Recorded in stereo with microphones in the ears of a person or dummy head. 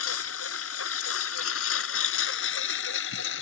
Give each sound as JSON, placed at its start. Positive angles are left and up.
{"t": 0.0, "sound": "a lawn mower", "side_deg": 80}